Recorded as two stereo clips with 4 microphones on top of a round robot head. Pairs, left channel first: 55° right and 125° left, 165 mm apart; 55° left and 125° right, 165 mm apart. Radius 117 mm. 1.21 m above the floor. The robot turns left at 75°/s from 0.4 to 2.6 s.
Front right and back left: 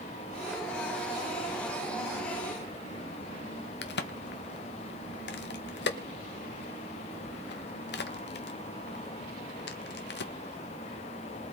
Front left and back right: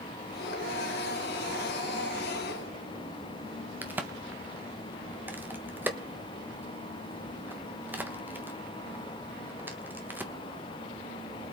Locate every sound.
3.8 s a crack: 45° right, 1.3 m